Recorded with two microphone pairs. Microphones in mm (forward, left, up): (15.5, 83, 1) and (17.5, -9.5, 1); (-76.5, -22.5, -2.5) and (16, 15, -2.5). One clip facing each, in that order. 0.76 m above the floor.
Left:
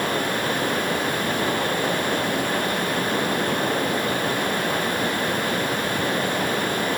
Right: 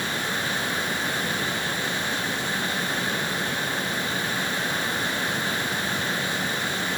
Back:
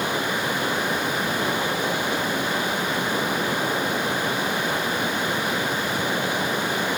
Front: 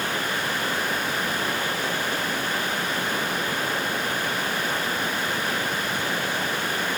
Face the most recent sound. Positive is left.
turn(degrees=130)